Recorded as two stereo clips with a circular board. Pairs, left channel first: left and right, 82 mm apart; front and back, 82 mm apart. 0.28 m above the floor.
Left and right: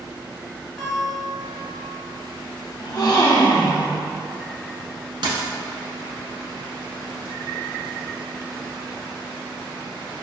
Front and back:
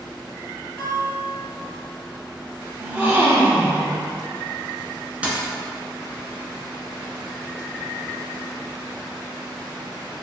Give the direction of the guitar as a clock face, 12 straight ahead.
11 o'clock.